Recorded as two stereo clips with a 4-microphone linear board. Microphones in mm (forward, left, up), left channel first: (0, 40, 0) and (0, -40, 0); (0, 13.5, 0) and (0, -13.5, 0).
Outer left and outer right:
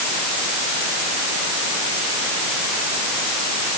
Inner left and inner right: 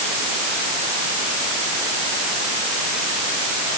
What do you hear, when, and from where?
Only background noise.